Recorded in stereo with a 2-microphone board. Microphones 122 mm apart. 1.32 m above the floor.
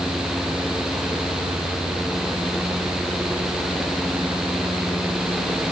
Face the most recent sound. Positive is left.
No sound to turn to.